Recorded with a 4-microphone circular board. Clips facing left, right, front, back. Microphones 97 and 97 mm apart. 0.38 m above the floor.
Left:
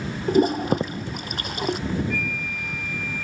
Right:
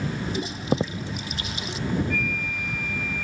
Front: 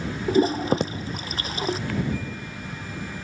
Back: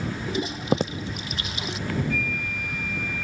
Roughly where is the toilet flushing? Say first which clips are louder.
Left 10 dB, front 6 dB; ahead left.